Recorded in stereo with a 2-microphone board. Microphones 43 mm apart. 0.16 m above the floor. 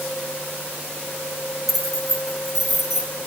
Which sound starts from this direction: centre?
Keys jangling, at 1.7 s.